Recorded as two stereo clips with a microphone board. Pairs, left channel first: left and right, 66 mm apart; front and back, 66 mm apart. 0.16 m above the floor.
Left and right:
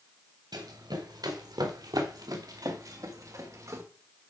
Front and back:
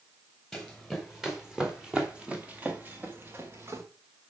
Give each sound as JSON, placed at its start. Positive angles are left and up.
{"t": 0.5, "sound": "running footsteps", "azimuth_deg": -90, "distance_m": 3.0}